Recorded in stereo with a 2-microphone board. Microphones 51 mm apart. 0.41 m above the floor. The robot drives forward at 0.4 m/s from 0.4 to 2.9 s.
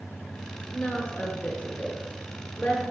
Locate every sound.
0.7 s a woman speaking: 25° left (ahead or behind), 1.3 m; by 2.8 s 20° left (ahead or behind), 1.6 m